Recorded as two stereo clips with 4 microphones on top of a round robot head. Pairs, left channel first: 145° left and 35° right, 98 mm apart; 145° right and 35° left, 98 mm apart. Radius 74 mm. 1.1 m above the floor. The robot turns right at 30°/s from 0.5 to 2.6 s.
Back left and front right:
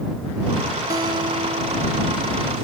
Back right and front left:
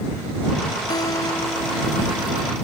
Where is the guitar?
90° right; by 2.6 s 40° right.